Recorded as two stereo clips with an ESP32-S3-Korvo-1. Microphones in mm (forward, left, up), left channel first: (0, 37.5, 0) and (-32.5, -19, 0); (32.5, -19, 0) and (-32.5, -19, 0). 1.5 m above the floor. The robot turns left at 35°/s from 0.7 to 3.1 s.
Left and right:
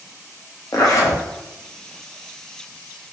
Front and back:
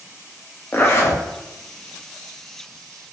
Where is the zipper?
55° left, 0.6 m; by 1.2 s 35° left, 0.6 m.